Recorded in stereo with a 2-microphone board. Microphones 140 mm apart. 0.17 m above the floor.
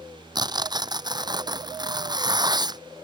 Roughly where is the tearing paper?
Right.